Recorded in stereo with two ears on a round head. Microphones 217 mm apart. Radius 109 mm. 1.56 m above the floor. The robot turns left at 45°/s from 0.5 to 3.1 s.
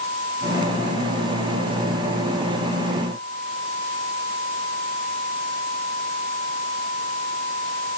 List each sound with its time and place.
Only background noise.